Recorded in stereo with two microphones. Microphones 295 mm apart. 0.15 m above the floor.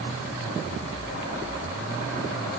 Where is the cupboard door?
No cupboard door in this recording.